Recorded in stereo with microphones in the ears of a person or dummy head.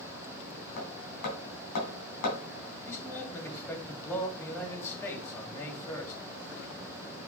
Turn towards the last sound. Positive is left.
turn(degrees=15)  # may be behind; listen again after turning